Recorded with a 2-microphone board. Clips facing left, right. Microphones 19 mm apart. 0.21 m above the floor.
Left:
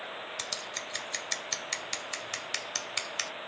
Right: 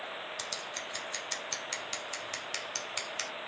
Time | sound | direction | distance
0.4 | scissors | 15° left (ahead or behind) | 0.7 m